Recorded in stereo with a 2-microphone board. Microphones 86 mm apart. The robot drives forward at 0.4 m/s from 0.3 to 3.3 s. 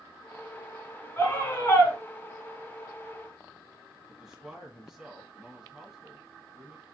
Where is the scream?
25° left (ahead or behind), 2.5 m.